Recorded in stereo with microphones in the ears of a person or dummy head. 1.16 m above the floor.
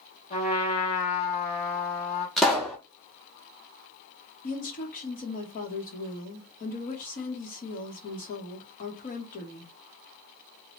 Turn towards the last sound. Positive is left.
turn(degrees=40)  # may be behind; listen again after turning